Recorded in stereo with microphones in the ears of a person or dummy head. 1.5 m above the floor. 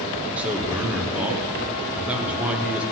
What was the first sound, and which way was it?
A man speaking, 5° right (ahead or behind).